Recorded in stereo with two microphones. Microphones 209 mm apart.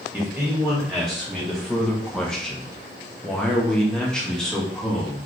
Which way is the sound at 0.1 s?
Centre (ahead or behind).